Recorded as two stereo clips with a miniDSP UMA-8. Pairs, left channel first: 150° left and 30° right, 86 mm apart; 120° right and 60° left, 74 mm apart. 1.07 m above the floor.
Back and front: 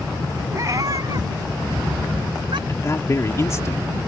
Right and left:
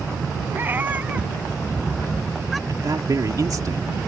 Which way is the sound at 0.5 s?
10° left.